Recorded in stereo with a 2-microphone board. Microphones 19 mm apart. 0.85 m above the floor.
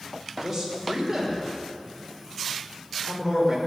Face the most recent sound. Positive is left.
turn(degrees=-20)  # may be behind; listen again after turning